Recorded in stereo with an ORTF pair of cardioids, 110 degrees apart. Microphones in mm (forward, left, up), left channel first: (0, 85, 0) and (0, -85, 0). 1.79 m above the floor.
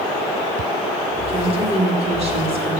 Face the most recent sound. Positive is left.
turn(degrees=-35)